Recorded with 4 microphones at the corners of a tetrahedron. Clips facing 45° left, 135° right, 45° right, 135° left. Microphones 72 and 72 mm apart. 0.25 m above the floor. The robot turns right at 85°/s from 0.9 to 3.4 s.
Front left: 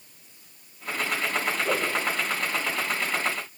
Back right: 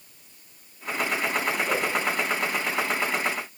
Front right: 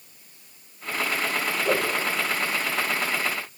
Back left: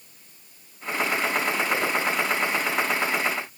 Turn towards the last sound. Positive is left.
turn(degrees=125)